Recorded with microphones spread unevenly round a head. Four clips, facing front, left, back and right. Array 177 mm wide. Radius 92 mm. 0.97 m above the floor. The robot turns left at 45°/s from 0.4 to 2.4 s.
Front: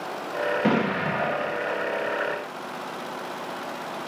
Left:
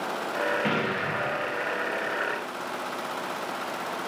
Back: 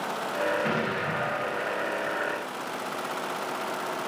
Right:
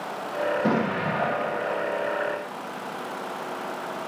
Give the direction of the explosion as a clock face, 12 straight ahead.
1 o'clock.